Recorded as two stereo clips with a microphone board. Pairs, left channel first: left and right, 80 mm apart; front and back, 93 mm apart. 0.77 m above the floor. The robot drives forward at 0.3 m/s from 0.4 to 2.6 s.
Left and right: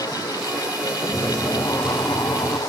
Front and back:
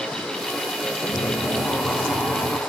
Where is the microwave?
5° left, 2 m.